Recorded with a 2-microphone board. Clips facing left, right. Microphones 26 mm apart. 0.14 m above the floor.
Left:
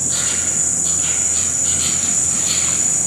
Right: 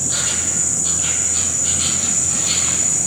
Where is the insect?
5° right (ahead or behind), 0.8 m.